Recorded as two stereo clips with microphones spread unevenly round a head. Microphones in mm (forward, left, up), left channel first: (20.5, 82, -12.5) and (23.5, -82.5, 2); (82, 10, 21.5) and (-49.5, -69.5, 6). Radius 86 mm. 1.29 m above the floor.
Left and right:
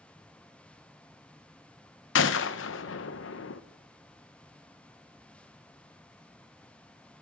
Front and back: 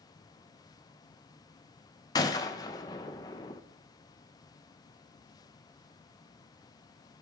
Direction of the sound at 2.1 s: 100° left.